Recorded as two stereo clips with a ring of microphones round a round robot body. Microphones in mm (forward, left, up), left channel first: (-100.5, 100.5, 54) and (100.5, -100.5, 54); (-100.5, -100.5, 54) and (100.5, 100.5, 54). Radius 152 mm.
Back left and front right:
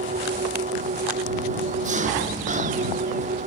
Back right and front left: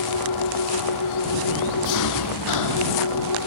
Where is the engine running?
110° right.